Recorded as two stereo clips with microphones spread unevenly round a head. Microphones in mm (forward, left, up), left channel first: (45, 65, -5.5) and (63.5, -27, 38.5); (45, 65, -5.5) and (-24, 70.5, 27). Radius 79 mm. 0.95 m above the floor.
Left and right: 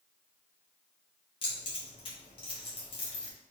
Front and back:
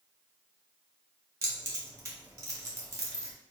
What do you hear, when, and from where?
1.4 s keys jangling: 120° left, 1.2 m